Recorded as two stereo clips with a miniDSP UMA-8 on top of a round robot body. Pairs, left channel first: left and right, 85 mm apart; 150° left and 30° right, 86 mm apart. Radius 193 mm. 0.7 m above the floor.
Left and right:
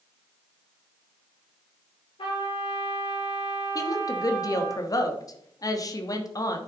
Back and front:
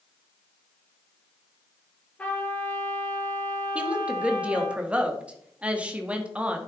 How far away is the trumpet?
About 5.5 m.